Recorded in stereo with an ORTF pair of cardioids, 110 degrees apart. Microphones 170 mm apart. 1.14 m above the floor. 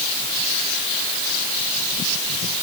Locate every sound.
Only background noise.